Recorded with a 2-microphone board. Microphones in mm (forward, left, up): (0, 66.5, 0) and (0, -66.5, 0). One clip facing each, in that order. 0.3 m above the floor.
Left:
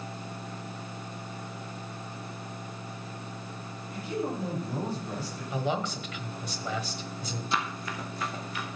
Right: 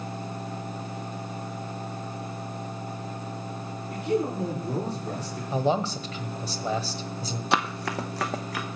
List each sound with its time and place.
3.9 s a man speaking: 70° right (ahead or behind), 7 m
5.5 s a man speaking: 35° right (ahead or behind), 1.1 m
7.5 s running footsteps: 75° right (ahead or behind), 0.8 m; by 8.7 s 80° right, 1.7 m